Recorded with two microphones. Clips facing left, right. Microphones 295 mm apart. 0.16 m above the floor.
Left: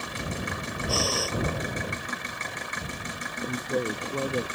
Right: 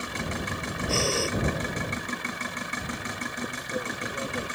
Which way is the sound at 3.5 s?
60° left (ahead or behind).